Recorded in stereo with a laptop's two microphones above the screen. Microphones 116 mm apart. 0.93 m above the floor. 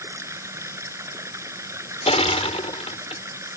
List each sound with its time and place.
0.0 s running water: 25° right (ahead or behind)
2.1 s crushing: 65° left (ahead or behind)